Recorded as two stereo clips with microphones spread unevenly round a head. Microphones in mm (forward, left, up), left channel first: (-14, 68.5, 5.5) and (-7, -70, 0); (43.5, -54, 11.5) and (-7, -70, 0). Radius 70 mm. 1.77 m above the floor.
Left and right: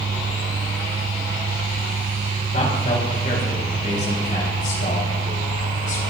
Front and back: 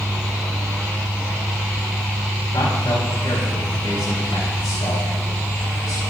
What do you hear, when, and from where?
2.5 s a man speaking: 45° left, 6 m; by 6.0 s 55° left, 7 m